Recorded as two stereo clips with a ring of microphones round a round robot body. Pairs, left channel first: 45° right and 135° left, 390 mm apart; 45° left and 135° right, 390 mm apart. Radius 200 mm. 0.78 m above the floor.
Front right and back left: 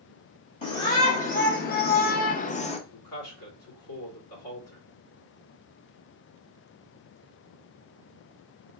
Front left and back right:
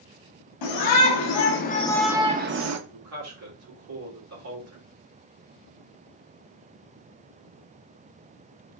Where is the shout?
25° left, 1.0 m; by 2.8 s 115° right, 0.7 m.